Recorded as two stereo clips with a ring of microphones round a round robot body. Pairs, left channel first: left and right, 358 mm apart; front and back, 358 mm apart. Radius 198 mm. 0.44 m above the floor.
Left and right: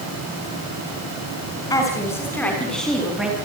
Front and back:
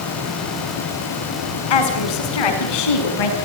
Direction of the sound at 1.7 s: 10° left.